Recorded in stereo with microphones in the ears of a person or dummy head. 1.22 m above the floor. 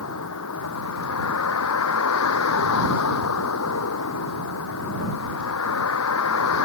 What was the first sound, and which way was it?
A vehicle, 85° left.